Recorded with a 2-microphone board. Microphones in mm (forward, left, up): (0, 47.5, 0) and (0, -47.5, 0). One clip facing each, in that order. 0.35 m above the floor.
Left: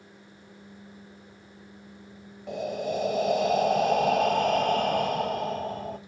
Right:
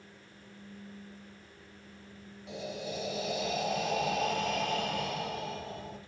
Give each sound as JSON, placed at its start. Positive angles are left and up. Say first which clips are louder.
{"t": 2.5, "sound": "breathing", "louder": "left 9 dB", "side_deg": 50, "distance_m": 0.8}